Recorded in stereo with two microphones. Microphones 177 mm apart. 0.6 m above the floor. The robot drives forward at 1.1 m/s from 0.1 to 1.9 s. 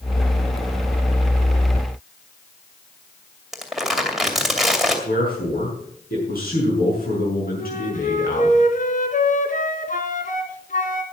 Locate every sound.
3.5 s crumpling: centre (ahead or behind), 2.5 m
5.0 s a man speaking: 60° left (ahead or behind), 7 m
7.6 s a flute: 55° left (ahead or behind), 1.5 m